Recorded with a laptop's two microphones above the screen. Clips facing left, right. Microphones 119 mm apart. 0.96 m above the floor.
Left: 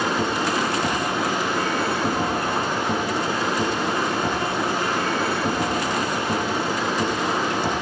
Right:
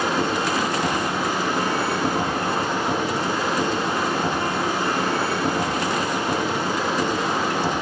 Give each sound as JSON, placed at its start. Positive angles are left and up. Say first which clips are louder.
{"t": 0.0, "sound": "a machine running", "louder": "right 1 dB", "side_deg": -35, "distance_m": 9.5}